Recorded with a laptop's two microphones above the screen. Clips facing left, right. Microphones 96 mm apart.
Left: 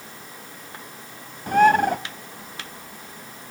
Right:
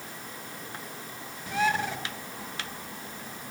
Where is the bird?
50° left (ahead or behind), 0.5 m.